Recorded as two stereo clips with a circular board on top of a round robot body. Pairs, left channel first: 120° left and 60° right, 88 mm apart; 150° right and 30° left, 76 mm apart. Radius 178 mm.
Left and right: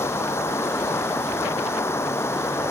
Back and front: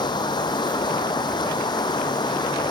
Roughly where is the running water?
Behind.